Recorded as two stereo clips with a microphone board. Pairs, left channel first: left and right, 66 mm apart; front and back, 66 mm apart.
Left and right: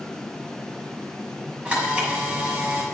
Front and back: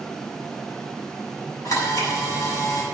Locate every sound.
1.6 s a camera shutter: 20° right, 7.5 m